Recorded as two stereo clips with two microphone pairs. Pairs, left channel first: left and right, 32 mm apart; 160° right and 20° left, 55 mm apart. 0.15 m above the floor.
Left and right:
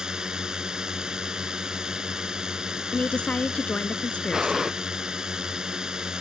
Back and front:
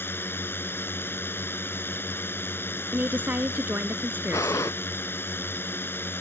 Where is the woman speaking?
60° left.